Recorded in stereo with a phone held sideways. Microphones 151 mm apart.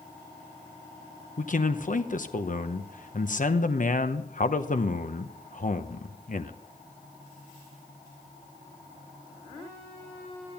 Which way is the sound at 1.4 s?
60° left (ahead or behind).